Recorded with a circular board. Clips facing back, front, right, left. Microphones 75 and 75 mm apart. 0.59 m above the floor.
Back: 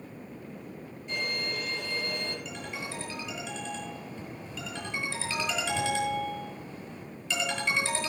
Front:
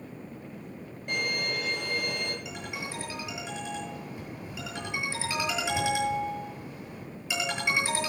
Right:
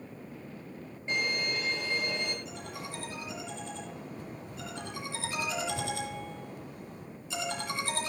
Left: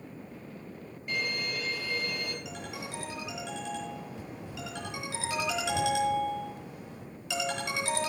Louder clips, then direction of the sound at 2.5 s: Even, left 1 dB; 80° left.